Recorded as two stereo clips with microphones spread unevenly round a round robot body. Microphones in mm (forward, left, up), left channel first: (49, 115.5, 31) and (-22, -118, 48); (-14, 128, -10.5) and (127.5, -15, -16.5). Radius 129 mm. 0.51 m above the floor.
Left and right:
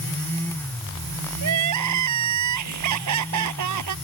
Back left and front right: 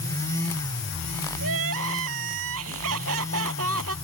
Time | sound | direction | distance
1.4 | crying | 85° right | ?